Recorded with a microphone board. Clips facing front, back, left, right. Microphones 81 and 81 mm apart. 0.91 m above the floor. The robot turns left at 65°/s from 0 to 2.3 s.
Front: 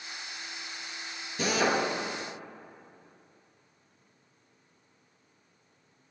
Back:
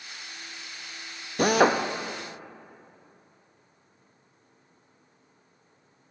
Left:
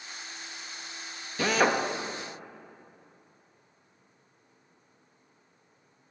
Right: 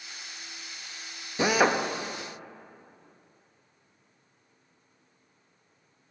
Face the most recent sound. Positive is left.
turn(degrees=145)